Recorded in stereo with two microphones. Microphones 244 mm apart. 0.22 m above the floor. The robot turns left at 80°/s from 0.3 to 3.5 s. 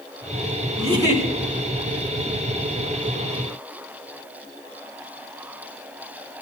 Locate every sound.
0.8 s a giggle: 145° right, 3.5 m; by 1.2 s straight behind, 3.5 m